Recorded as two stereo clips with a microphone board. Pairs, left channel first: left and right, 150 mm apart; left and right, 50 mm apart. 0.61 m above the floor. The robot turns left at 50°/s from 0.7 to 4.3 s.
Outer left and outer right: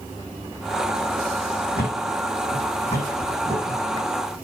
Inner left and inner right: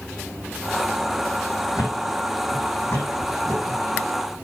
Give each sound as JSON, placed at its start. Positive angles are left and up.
{"t": 1.8, "sound": "a thud", "side_deg": 80, "distance_m": 8.0}